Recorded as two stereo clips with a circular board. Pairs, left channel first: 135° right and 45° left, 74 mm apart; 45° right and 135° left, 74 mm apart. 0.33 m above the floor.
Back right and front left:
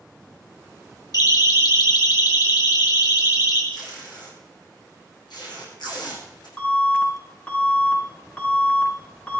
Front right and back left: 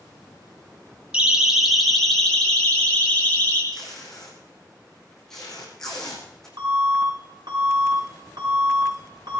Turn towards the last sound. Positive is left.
turn(degrees=155)